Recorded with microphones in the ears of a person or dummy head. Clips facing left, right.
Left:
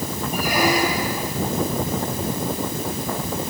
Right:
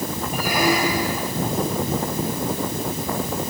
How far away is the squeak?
About 7 m.